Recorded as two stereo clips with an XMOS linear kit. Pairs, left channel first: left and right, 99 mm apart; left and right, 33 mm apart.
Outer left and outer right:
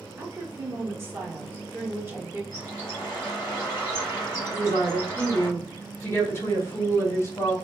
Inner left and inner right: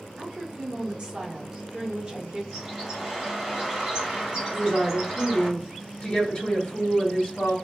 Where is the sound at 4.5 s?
30° left (ahead or behind), 1.3 m.